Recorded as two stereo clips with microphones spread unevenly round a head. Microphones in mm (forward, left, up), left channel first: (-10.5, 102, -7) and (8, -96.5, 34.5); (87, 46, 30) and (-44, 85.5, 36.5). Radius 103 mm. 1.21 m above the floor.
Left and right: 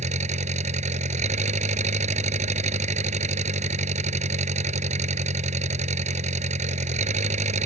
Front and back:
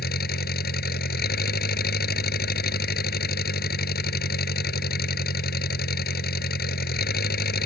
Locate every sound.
0.0 s an engine running: 25° right